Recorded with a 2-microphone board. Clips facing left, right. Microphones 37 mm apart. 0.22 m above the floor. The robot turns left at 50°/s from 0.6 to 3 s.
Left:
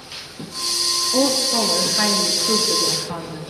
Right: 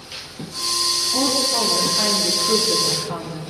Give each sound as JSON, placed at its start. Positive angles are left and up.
{"t": 1.1, "sound": "a woman speaking", "azimuth_deg": 110, "distance_m": 3.0}